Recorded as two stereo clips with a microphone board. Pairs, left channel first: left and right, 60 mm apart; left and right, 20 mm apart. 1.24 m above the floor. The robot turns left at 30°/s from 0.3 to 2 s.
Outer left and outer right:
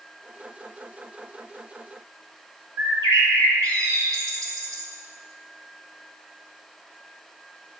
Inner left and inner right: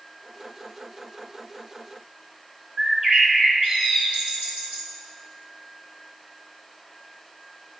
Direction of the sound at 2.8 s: 75° right (ahead or behind).